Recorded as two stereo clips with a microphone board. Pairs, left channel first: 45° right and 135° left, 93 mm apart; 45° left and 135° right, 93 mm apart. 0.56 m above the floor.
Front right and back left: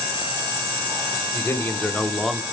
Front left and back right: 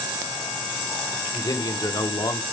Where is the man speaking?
10° left, 1.7 m; by 2.4 s 50° left, 1.2 m.